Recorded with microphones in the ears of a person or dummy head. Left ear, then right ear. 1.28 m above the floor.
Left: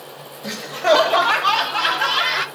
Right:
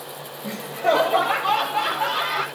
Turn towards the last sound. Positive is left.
turn(degrees=50)  # may be behind; listen again after turning